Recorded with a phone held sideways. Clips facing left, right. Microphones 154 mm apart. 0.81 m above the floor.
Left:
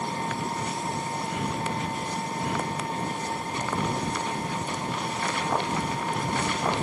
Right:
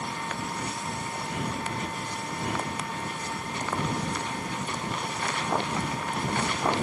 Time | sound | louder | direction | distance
0.0 | an engine running | left 4 dB | 35° left (ahead or behind) | ?